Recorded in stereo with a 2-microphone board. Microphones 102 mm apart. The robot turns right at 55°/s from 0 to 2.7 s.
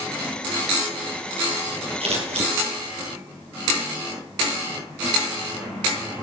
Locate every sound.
2.0 s scissors: 70° right (ahead or behind), 4 m; by 2.5 s 85° right, 4 m